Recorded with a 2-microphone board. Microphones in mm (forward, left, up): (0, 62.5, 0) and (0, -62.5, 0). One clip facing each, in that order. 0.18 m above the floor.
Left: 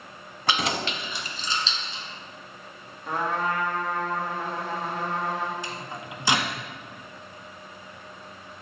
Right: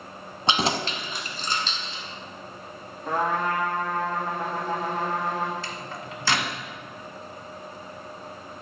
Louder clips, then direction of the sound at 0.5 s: Right 2 dB; 25° right (ahead or behind).